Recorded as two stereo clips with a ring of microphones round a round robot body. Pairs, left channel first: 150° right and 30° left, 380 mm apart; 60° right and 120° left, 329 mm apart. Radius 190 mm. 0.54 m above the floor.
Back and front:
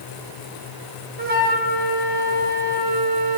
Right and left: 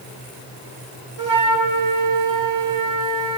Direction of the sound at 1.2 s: 95° left.